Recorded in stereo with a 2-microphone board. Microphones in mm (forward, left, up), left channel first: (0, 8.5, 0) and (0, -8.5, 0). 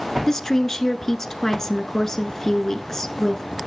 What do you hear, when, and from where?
0.3 s a woman speaking: 30° left (ahead or behind), 1.3 m